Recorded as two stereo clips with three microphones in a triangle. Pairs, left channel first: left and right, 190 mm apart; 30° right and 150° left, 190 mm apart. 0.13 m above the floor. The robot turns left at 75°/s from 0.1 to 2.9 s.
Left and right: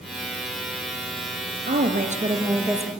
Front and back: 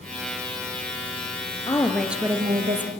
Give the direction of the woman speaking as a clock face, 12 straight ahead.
3 o'clock.